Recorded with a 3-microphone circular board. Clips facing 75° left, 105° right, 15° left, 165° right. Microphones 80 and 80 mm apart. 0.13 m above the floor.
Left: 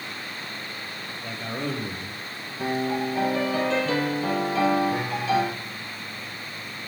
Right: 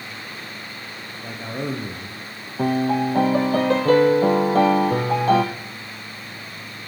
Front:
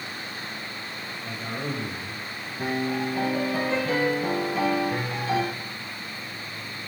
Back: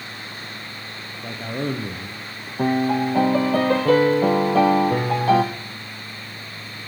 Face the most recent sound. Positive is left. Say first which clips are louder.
# right 6 dB, back 7 dB
turn(degrees=-145)